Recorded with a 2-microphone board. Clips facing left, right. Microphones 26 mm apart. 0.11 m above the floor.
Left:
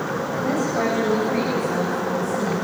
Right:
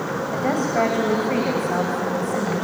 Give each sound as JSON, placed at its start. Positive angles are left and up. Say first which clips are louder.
{"t": 0.3, "sound": "a woman speaking", "louder": "right 2 dB", "side_deg": -60, "distance_m": 6.0}